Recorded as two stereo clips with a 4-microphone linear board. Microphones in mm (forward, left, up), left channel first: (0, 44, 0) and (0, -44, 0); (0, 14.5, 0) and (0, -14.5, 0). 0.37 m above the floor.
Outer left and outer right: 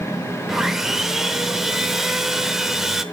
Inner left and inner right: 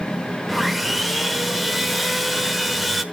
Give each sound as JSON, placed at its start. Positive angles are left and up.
{"t": 0.5, "sound": "sawing", "side_deg": -5, "distance_m": 0.8}